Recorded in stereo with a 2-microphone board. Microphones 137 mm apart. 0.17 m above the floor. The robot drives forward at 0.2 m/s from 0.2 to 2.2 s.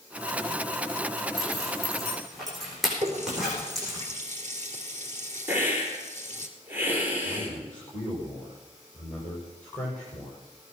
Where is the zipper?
Centre (ahead or behind), 7.5 m.